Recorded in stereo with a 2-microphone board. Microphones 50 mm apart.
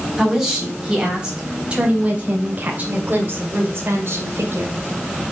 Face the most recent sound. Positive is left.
turn(degrees=-55)  # may be behind; listen again after turning